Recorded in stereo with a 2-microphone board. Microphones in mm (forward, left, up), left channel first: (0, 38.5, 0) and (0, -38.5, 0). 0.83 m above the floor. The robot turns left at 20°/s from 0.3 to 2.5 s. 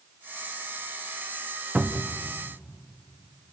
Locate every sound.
1.8 s a cupboard door: 20° right (ahead or behind), 0.9 m; by 2.2 s 25° right (ahead or behind), 0.9 m